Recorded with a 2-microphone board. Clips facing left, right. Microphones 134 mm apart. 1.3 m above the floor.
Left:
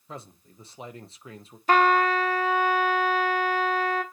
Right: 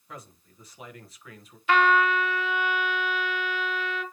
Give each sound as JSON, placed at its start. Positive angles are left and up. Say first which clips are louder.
{"t": 0.1, "sound": "a man speaking", "louder": "left 3 dB", "side_deg": 25, "distance_m": 1.1}
{"t": 1.7, "sound": "a trumpet", "louder": "left 1 dB", "side_deg": 40, "distance_m": 1.0}